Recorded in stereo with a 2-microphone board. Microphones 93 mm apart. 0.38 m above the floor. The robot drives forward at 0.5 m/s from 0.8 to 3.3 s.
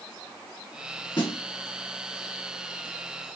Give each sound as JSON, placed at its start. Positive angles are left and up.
{"t": 1.2, "sound": "a snare drum", "side_deg": 70, "distance_m": 2.5}